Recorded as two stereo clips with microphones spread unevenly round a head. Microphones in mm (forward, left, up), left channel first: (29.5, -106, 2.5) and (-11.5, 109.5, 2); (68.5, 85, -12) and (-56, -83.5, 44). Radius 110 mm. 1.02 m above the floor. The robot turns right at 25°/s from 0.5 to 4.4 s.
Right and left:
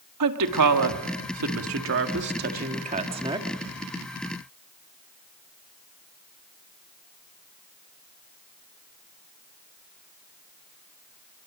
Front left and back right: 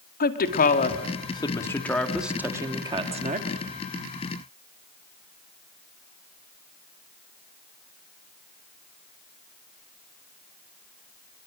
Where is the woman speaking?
100° left, 1.9 m; by 3.6 s straight behind, 1.9 m.